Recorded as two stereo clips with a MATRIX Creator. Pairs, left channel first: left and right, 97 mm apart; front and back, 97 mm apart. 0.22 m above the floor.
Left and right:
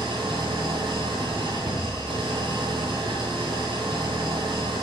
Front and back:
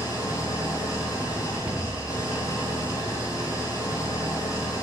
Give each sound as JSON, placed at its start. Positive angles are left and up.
{"t": 0.0, "sound": "an engine running", "azimuth_deg": -55, "distance_m": 2.0}
{"t": 1.6, "sound": "a cupboard door", "azimuth_deg": -100, "distance_m": 2.0}